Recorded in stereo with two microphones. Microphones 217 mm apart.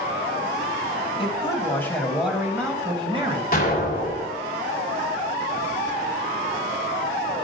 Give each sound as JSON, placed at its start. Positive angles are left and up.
{"t": 1.2, "sound": "a man speaking", "side_deg": 25, "distance_m": 1.2}
{"t": 3.5, "sound": "an explosion", "side_deg": 40, "distance_m": 1.4}